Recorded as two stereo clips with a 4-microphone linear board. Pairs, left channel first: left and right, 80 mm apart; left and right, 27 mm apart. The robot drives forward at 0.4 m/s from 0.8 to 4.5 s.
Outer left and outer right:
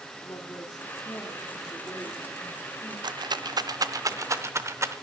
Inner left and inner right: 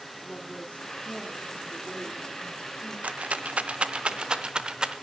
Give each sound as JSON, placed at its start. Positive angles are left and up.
{"t": 0.2, "sound": "a woman speaking", "side_deg": 45, "distance_m": 1.7}
{"t": 3.0, "sound": "a rattle", "side_deg": -60, "distance_m": 0.5}